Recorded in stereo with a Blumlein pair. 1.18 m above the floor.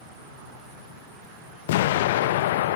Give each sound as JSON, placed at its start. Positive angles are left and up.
{"t": 1.7, "sound": "an explosion", "azimuth_deg": 55, "distance_m": 0.7}